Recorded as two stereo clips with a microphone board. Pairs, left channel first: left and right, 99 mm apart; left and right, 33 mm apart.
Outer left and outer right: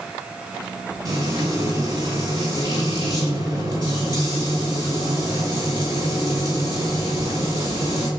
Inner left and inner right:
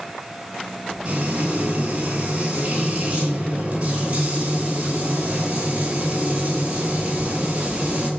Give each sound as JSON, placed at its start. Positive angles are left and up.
{"t": 1.1, "sound": "frying", "side_deg": -45, "distance_m": 9.5}